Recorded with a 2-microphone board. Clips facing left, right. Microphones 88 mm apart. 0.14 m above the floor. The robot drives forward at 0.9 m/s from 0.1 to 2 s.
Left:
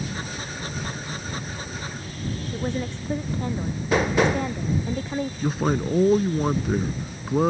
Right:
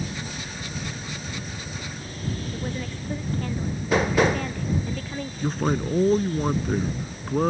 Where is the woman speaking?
20° left (ahead or behind).